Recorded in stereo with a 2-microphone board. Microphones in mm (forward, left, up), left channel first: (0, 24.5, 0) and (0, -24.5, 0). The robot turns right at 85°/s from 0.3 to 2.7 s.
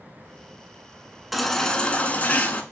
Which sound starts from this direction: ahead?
A baby crying, at 1.3 s.